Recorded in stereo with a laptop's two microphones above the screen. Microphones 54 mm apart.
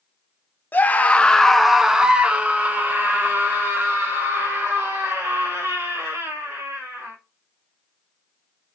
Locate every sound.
0.7 s a scream: 35° left (ahead or behind), 0.7 m; by 7.1 s 45° right (ahead or behind), 3.5 m